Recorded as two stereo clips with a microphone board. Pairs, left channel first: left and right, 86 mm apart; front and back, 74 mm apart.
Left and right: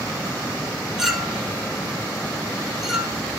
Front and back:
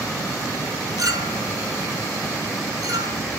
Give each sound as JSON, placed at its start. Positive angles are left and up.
{"t": 1.0, "sound": "a clink", "azimuth_deg": -170, "distance_m": 2.0}